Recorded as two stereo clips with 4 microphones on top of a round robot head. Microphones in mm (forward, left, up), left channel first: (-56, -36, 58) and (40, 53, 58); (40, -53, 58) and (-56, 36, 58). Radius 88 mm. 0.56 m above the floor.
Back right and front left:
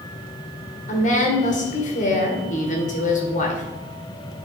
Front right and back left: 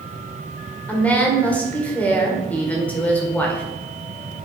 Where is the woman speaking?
120° right, 2 m.